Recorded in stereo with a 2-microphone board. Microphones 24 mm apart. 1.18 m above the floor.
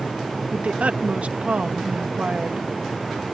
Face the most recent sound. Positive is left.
turn(degrees=-70)  # may be behind; listen again after turning